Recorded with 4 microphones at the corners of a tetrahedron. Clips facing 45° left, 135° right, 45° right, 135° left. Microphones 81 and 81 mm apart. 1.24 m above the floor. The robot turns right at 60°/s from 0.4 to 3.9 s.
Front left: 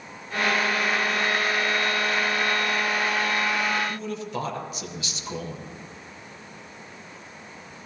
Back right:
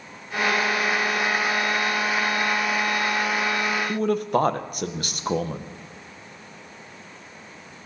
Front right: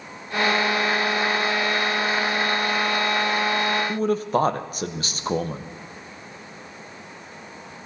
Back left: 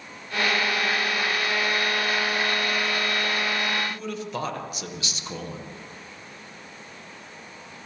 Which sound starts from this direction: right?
A man speaking, at 3.9 s.